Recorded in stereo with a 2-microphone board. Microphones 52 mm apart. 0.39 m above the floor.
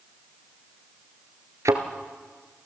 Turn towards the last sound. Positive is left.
turn(degrees=-70)  # may be behind; listen again after turning